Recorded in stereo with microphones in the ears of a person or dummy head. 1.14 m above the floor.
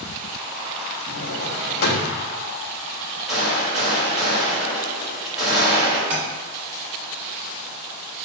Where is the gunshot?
Centre (ahead or behind), 1.7 m.